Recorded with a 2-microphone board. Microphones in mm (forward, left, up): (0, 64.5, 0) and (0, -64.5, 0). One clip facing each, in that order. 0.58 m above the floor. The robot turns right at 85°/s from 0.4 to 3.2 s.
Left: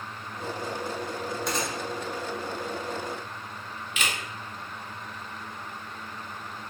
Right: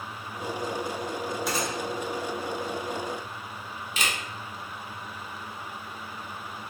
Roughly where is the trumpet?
No trumpet in this recording.